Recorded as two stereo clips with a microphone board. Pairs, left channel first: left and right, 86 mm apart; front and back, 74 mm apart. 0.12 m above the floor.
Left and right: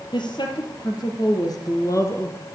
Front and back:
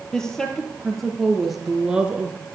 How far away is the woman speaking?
About 3 m.